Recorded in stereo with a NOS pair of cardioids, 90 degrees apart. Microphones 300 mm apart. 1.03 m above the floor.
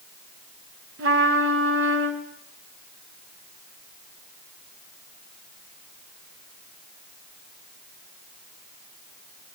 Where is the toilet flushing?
No toilet flushing in this recording.